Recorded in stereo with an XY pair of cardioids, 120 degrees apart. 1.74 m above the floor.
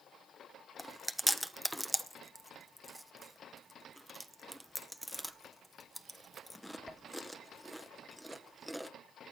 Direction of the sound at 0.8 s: Straight ahead.